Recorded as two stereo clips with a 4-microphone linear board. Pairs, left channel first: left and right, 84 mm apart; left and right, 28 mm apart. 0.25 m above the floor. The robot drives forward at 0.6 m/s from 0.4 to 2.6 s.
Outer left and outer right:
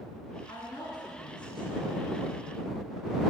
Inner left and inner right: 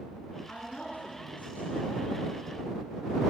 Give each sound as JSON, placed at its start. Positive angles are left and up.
{"t": 0.5, "sound": "a woman speaking", "side_deg": 65, "distance_m": 3.5}